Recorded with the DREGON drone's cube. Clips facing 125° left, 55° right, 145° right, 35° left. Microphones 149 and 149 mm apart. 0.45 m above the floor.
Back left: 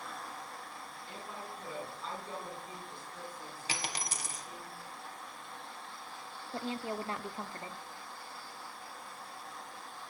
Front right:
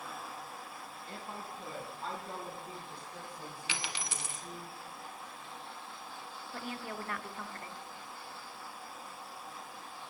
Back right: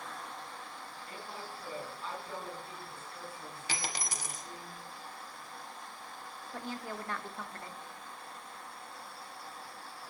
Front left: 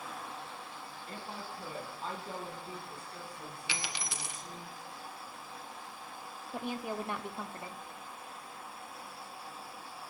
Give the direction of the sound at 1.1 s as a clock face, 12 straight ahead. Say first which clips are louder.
Front right 1 dB, front left 2 dB; 1 o'clock.